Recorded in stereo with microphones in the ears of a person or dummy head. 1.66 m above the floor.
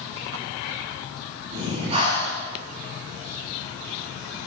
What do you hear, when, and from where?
1.5 s breathing: 40° right (ahead or behind), 9 m